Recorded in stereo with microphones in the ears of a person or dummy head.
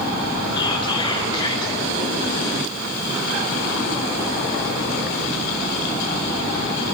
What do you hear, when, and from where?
0.6 s whispering: 25° left (ahead or behind), 3 m